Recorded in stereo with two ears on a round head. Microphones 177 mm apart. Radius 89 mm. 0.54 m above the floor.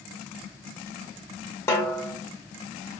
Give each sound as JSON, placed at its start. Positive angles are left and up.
{"t": 1.7, "sound": "a snare drum", "side_deg": 15, "distance_m": 0.5}